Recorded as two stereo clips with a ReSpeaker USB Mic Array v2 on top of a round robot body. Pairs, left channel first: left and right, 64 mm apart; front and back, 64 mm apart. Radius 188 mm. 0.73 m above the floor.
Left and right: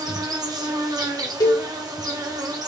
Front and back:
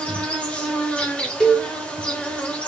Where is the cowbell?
80° left, 3 m.